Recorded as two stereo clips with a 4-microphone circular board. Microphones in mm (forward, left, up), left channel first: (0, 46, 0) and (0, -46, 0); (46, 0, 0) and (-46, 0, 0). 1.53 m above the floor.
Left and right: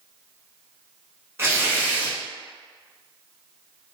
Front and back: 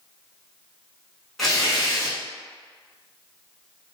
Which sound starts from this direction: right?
Tearing paper, at 1.4 s.